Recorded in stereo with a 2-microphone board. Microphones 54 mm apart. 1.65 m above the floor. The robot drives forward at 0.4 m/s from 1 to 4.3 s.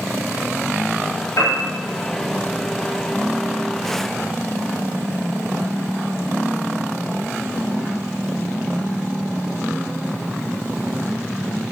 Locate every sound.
1.4 s a piano: 65° left (ahead or behind), 4.5 m